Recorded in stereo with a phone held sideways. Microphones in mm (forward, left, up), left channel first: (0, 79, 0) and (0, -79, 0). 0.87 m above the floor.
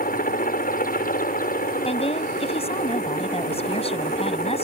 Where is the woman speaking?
40° left (ahead or behind).